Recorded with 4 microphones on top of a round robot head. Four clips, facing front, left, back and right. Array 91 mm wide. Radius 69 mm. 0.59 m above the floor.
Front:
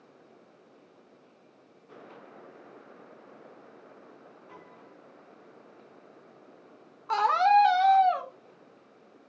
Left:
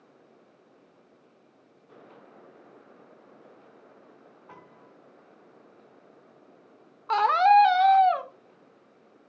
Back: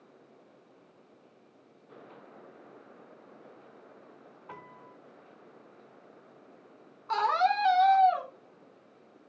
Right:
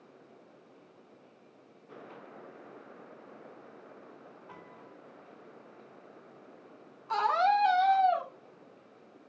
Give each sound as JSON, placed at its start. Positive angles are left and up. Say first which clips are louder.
{"t": 4.5, "sound": "a piano", "louder": "left 2 dB, back 5 dB", "azimuth_deg": 155, "distance_m": 4.0}
{"t": 7.1, "sound": "a scream", "louder": "left 7 dB, front 4 dB", "azimuth_deg": 75, "distance_m": 2.5}